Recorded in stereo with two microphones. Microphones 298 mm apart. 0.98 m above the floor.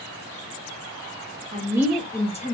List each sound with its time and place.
1.5 s a woman speaking: 20° right (ahead or behind), 0.8 m; by 2.5 s 30° left (ahead or behind), 0.7 m